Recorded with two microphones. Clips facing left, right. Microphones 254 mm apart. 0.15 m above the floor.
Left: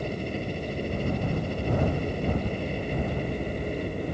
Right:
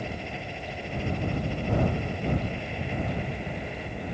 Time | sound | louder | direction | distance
0.0 | a helicopter | left 5 dB | 45° left (ahead or behind) | ?